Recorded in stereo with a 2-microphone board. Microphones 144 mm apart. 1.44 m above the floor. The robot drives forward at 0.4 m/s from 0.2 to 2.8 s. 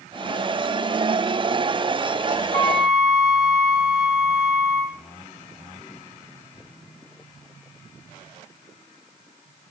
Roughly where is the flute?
Right.